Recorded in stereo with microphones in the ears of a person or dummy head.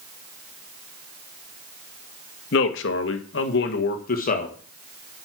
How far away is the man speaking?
About 1.7 m.